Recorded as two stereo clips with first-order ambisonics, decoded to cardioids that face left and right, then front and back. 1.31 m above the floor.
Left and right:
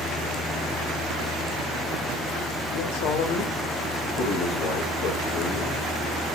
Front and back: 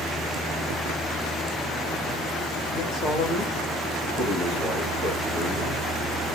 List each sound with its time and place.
2.7 s a man speaking: 65° left, 2.0 m